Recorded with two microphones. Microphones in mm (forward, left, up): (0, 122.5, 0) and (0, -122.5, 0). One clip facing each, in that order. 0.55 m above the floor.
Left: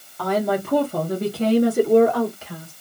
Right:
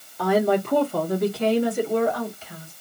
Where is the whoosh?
No whoosh in this recording.